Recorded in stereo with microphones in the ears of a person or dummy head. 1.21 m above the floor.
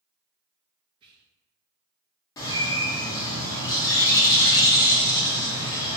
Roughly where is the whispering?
Right.